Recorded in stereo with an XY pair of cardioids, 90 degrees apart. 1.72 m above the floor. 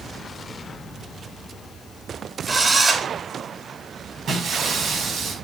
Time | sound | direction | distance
2.5 | a drill | 35° right | 5.5 m
4.3 | breaking glass | 70° right | 5.5 m